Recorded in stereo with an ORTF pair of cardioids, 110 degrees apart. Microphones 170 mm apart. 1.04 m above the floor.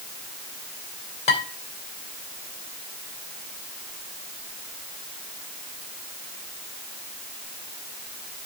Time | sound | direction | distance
1.3 | dishes clattering | 45° left | 3 m